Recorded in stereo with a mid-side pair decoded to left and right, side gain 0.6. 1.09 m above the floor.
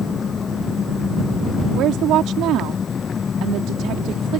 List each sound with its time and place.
0.0 s an engine running: 35° left
1.8 s a woman speaking: 65° right